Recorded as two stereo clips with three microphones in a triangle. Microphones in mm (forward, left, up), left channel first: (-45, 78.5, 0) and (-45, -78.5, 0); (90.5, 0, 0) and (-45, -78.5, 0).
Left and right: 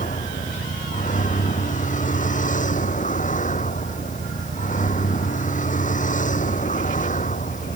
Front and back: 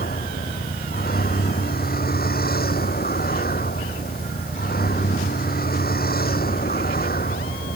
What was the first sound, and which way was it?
A vehicle, 50° left.